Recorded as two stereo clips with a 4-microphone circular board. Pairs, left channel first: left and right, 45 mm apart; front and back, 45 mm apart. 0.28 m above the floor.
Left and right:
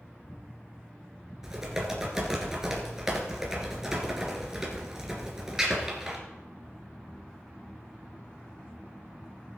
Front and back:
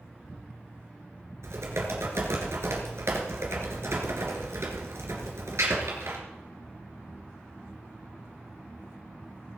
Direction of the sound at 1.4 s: 165° right.